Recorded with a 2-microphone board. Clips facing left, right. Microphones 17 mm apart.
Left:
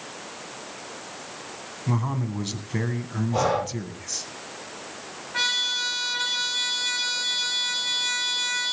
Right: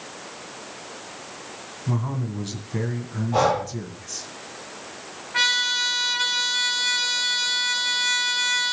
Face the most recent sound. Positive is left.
turn(degrees=-10)  # may be behind; listen again after turning